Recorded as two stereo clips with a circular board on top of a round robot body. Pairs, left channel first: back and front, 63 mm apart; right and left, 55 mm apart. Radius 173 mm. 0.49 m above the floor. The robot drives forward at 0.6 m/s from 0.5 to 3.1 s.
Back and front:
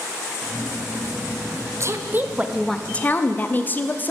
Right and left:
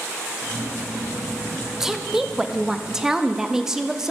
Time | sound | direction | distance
1.8 | a woman speaking | 10° left | 0.8 m